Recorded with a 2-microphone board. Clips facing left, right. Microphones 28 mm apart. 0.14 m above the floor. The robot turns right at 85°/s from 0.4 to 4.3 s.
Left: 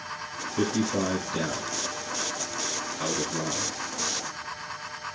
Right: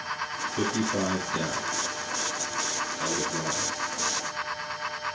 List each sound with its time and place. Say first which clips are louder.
0.6 s a man speaking: left 2 dB; 10° right (ahead or behind), 1.7 m; by 3.8 s 20° right (ahead or behind), 1.7 m